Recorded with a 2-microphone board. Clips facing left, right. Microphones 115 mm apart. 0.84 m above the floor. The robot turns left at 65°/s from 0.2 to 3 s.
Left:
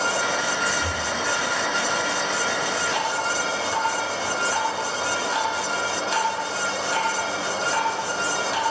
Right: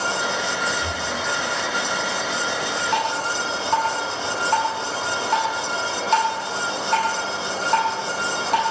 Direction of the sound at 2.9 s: 60° right (ahead or behind).